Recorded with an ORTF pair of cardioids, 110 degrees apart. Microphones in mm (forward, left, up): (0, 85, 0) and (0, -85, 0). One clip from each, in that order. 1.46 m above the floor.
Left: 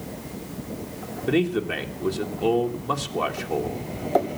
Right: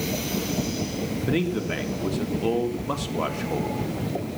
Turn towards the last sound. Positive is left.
turn(degrees=5)